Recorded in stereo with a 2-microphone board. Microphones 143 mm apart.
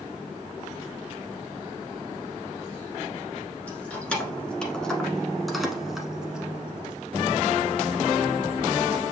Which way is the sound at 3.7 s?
10° left (ahead or behind).